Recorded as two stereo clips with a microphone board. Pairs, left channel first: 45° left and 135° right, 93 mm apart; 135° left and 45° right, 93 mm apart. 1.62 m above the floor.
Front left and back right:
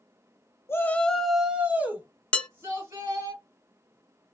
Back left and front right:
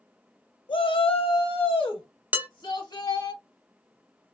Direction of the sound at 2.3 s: 10° right.